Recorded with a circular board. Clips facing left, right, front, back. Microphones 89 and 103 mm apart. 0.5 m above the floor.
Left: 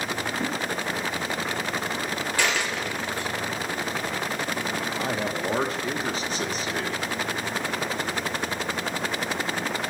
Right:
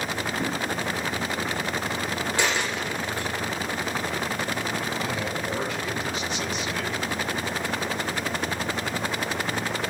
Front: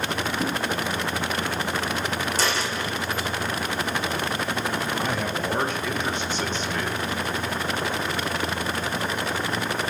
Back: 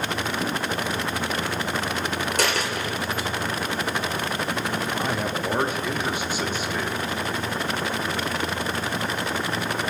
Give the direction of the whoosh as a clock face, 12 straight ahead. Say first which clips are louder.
Right 1 dB, front 3 dB; 2 o'clock.